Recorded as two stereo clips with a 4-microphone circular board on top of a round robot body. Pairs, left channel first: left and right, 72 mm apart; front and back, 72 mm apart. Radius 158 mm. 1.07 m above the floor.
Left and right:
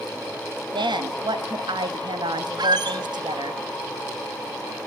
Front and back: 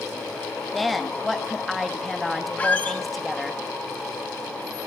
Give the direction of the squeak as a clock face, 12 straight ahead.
2 o'clock.